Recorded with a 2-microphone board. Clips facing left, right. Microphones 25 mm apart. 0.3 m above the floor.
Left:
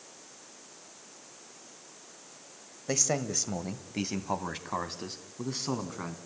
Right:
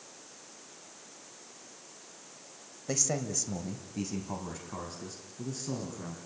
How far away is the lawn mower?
No lawn mower in this recording.